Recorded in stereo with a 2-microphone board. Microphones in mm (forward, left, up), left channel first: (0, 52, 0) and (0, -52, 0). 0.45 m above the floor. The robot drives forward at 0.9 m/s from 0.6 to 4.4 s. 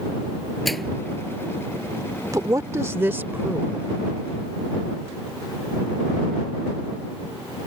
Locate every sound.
0.7 s a microwave: centre (ahead or behind)
2.3 s a woman speaking: 35° right (ahead or behind); by 3.9 s 15° right (ahead or behind)